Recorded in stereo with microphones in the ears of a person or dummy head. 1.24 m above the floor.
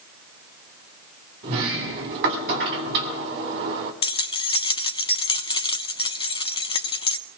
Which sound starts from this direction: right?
A sliding door, at 1.4 s.